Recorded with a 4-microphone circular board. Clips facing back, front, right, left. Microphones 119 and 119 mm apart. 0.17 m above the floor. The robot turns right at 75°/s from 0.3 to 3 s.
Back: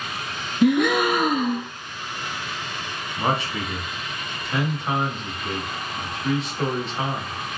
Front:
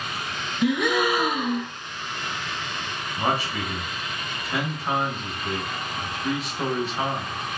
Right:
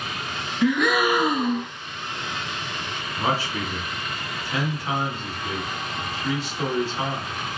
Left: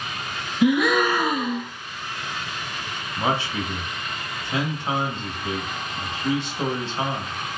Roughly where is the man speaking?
Left.